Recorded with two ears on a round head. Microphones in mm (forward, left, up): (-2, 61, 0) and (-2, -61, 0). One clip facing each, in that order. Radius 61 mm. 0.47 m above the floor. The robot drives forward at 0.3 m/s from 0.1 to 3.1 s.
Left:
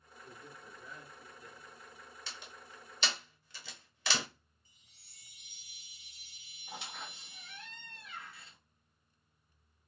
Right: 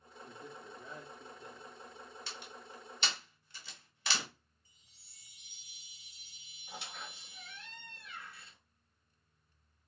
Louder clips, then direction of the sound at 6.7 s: Left 1 dB; 70° left (ahead or behind).